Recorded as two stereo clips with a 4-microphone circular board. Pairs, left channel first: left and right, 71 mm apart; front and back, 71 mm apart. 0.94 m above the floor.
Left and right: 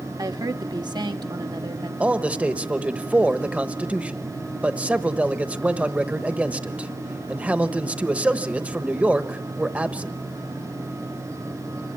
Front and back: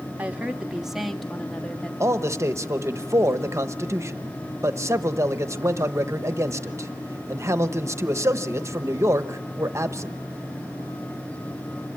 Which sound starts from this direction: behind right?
A man speaking, at 2.0 s.